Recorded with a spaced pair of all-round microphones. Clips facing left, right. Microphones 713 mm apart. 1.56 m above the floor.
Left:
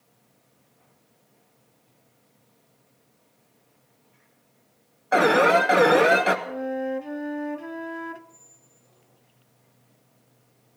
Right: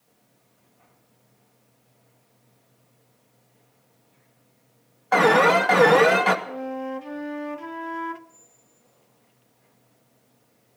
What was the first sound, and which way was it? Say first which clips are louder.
An alarm: right 1 dB; 30° right (ahead or behind).